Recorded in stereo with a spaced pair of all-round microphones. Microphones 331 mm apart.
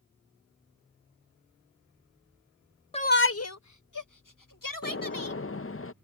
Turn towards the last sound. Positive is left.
turn(degrees=40)  # may be behind; listen again after turning